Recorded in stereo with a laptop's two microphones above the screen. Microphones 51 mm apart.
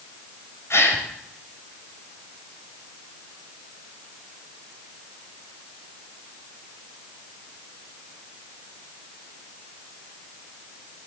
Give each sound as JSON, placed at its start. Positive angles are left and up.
{"t": 0.7, "sound": "a gasp", "side_deg": 60, "distance_m": 2.0}